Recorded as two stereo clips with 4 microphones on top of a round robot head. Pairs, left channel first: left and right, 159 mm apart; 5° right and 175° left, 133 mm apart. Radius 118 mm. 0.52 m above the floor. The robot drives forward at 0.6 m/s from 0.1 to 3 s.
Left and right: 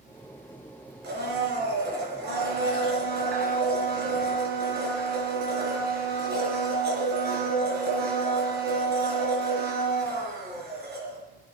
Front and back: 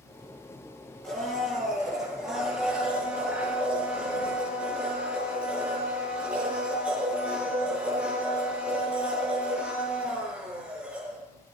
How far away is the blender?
About 4.5 m.